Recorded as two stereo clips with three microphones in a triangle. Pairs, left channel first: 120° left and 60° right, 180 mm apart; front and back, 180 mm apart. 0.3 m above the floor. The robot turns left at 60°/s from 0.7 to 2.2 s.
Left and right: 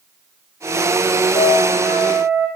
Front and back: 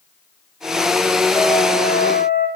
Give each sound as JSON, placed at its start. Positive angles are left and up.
{"t": 1.3, "sound": "a trumpet", "azimuth_deg": 75, "distance_m": 7.0}